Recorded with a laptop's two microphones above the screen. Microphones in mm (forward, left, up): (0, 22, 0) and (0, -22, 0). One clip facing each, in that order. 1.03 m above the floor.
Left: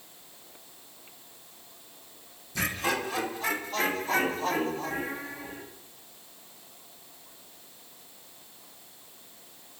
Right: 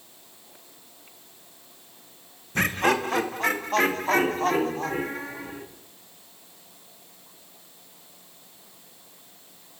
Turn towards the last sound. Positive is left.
turn(degrees=-60)  # may be behind; listen again after turning